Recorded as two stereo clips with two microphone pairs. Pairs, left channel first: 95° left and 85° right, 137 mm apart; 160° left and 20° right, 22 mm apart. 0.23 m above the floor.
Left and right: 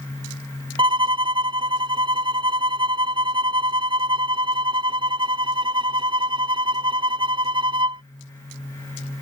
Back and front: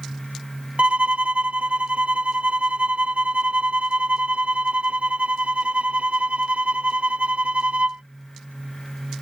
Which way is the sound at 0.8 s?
30° right.